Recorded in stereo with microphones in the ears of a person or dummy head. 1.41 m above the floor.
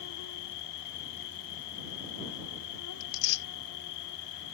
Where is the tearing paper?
90° left.